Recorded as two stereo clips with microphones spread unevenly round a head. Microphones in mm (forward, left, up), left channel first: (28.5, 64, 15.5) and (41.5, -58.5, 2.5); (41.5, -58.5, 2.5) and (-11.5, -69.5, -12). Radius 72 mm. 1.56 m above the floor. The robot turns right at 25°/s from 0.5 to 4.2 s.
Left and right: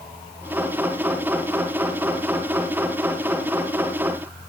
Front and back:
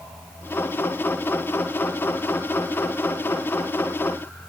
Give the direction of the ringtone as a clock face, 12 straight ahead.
No ringtone in this recording.